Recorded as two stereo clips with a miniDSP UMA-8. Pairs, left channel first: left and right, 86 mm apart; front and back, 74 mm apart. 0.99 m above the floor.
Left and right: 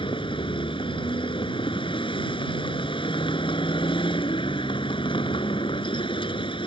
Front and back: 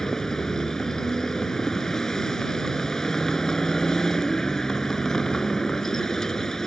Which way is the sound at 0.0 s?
80° left.